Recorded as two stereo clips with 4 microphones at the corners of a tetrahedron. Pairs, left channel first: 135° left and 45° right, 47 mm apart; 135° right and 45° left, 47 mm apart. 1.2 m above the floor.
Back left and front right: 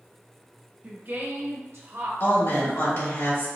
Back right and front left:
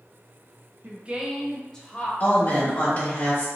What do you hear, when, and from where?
0.8 s a woman speaking: 5° left, 0.8 m; by 2.1 s 70° right, 1.3 m
2.2 s a woman speaking: 165° left, 1.6 m